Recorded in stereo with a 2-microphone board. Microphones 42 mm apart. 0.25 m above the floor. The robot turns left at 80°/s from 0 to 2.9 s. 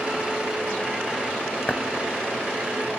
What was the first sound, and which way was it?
Knocking, 35° left (ahead or behind).